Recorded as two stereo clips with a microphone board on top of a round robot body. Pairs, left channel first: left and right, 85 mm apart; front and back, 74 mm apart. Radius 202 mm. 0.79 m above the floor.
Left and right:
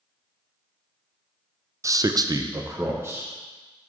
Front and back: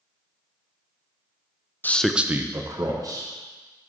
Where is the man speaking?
55° right, 0.6 m; by 3.3 s 155° right, 1.3 m.